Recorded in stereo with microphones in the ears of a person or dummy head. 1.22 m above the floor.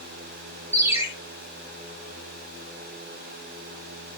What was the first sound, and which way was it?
A ringtone, 10° right (ahead or behind).